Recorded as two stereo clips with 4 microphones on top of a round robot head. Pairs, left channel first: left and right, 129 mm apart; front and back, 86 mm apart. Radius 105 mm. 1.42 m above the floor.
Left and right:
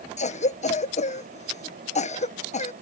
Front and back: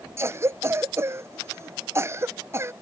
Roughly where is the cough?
Behind left.